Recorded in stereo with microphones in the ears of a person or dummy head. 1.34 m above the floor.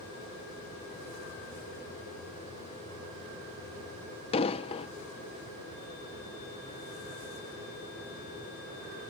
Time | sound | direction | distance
4.3 | an explosion | 30° left (ahead or behind) | ?